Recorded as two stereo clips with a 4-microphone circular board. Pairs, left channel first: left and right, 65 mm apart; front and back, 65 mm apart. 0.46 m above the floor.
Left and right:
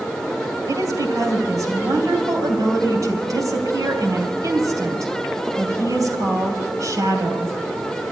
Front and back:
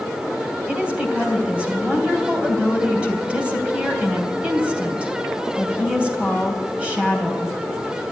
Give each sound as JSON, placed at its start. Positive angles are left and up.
{"t": 0.7, "sound": "a woman speaking", "azimuth_deg": -110, "distance_m": 3.0}